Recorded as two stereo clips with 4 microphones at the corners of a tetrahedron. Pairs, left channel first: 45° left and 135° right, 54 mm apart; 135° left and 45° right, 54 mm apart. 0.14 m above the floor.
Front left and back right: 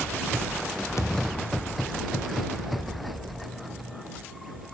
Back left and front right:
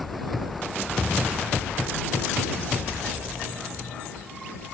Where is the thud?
65° left.